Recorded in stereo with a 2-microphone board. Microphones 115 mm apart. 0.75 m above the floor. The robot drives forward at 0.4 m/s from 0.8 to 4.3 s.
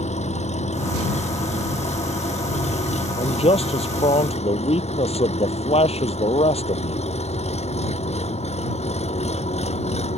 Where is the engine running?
80° left; by 10.2 s 70° left (ahead or behind).